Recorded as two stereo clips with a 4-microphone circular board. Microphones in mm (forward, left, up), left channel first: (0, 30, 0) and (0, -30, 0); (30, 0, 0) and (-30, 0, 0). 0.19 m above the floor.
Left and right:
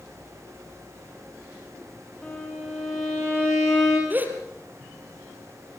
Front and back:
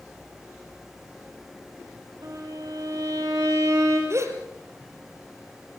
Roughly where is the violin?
Behind.